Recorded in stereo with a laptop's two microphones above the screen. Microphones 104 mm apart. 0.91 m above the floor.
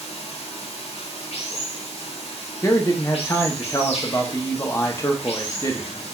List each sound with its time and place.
0.0 s running water: 80° left, 1.1 m
2.6 s a man speaking: 30° left (ahead or behind), 0.6 m